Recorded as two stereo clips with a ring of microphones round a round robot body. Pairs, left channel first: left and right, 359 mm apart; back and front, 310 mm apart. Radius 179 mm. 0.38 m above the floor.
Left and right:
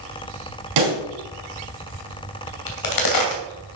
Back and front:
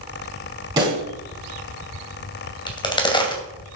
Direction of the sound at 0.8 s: 80° right.